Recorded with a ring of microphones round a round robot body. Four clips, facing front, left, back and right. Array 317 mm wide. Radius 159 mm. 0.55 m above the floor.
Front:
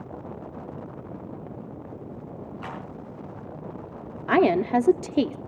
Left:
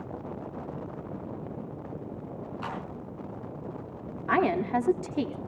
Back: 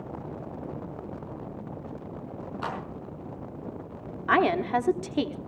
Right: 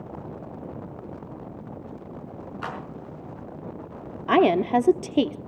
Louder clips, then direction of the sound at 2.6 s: Right 3 dB, back 4 dB; 160° right.